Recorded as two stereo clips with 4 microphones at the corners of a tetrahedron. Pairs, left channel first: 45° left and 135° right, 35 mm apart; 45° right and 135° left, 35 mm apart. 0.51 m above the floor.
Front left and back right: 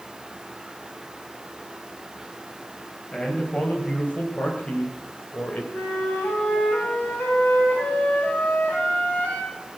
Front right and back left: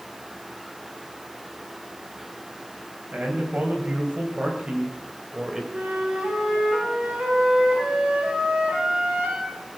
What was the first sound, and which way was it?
A man speaking, 105° left.